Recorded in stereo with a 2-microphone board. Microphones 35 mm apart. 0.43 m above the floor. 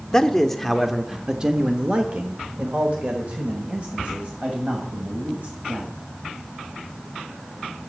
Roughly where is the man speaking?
Centre.